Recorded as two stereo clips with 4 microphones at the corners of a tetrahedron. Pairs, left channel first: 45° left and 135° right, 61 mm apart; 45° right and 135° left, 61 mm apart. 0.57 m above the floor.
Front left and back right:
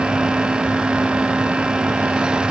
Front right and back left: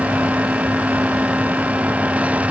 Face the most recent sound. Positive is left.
No sound to turn to.